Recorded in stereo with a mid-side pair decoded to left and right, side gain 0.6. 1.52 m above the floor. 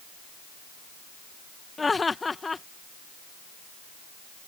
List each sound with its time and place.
1.8 s laughter: 20° left